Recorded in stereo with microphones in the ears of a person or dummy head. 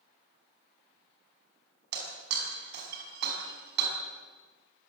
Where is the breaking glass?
60° right (ahead or behind), 5.5 m.